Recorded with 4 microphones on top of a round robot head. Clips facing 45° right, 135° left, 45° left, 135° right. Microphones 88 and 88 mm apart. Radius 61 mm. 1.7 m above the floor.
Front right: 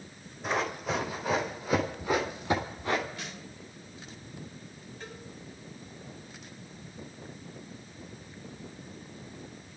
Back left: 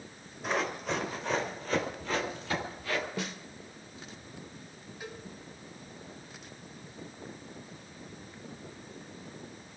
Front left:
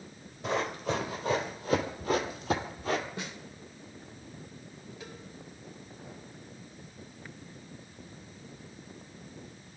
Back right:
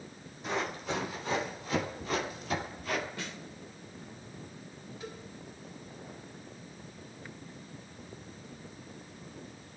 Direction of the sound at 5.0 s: 55° left.